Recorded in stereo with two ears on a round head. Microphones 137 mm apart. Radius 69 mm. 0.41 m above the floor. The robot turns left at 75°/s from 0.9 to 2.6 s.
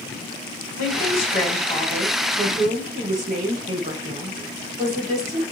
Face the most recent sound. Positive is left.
turn(degrees=-60)